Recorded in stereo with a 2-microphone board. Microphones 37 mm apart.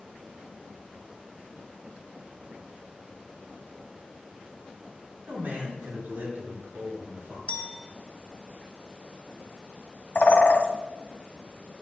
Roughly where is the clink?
Left.